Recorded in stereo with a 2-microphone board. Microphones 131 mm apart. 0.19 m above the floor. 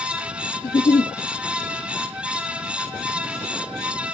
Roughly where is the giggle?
Left.